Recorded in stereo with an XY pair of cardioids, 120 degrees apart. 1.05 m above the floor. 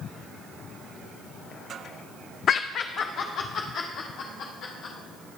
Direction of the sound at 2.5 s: 50° left.